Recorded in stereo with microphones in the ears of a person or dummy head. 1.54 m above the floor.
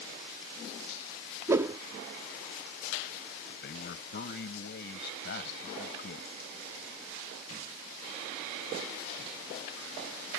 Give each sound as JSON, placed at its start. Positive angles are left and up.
{"t": 1.5, "sound": "a whoosh", "side_deg": -15}
{"t": 3.5, "sound": "a man speaking", "side_deg": 60}